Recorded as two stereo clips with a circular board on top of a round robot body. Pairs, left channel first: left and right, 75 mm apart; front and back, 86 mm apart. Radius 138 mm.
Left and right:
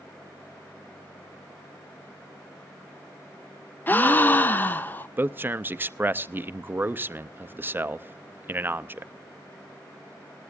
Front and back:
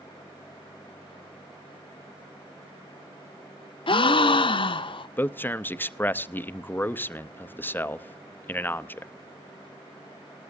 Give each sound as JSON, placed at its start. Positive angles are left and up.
{"t": 3.9, "sound": "a gasp", "azimuth_deg": 25, "distance_m": 0.7}
{"t": 5.2, "sound": "a man speaking", "azimuth_deg": -50, "distance_m": 0.7}